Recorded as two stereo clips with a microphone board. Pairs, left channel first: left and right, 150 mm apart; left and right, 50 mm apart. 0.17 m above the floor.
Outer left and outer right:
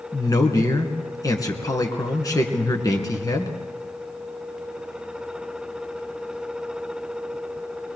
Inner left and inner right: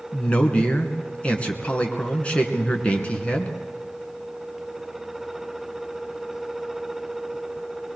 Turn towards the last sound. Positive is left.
turn(degrees=25)  # may be behind; listen again after turning